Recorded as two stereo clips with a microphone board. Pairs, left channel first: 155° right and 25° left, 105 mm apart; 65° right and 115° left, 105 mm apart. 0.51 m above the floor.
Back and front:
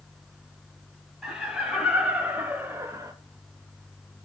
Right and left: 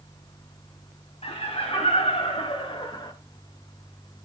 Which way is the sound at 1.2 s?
60° right.